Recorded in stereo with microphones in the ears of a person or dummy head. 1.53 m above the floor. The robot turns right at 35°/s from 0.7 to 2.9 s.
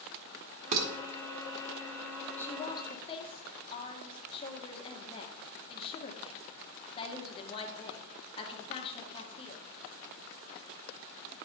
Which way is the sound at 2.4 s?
5° left (ahead or behind).